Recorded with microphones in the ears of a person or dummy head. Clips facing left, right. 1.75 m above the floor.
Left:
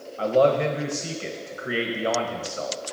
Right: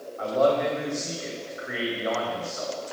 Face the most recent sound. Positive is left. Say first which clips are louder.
# left 3 dB
turn(degrees=50)  # may be behind; listen again after turning